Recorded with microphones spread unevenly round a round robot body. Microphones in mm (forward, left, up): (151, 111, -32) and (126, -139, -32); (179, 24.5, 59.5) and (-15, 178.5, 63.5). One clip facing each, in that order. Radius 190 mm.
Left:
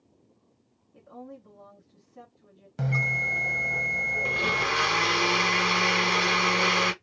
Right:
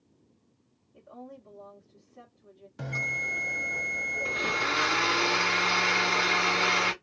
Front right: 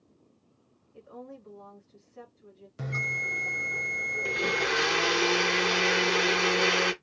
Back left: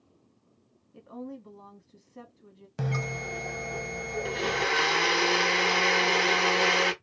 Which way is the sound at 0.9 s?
115° left.